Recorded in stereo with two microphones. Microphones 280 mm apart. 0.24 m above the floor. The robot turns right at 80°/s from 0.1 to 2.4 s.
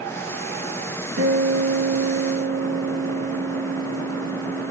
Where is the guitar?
125° right, 3.5 m; by 4.7 s 30° right, 3.5 m.